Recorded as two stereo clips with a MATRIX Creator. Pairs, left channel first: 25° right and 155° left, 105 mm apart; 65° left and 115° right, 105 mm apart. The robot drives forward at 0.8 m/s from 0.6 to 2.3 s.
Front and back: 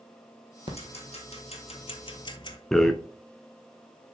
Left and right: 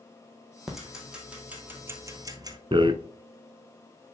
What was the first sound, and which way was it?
Ticking, 25° right.